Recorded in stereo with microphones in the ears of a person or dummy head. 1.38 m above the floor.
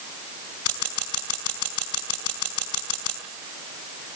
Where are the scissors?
80° left, 5.5 m.